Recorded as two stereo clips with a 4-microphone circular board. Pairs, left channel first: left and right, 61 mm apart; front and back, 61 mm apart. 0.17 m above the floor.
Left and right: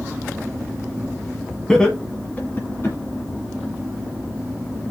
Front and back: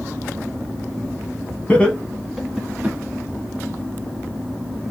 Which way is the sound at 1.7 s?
20° left.